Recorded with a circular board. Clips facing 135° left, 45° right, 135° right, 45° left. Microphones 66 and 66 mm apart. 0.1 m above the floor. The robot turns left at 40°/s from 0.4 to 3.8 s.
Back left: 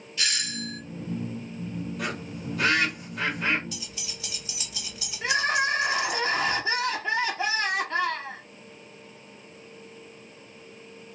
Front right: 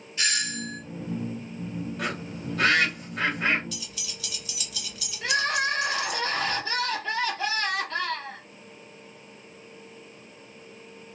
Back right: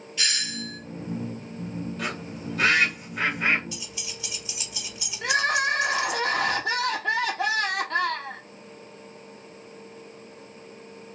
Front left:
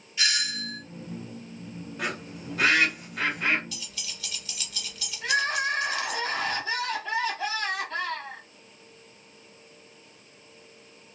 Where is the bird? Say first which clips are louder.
Front right 1 dB, back right 1 dB; 15° right, 2 m; by 3.6 s 80° right, 2 m.